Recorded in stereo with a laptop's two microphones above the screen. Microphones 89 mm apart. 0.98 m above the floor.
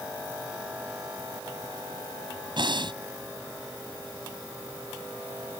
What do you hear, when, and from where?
2.6 s breathing: 65° right (ahead or behind)